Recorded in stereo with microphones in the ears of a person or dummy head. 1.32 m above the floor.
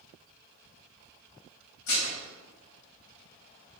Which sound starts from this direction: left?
Dishes clattering, at 1.9 s.